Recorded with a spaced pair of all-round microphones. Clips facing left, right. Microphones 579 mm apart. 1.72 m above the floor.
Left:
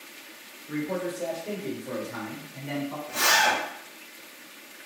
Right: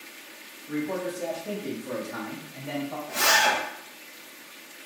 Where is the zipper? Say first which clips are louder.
Right 1 dB; 20° right (ahead or behind), 1.2 m.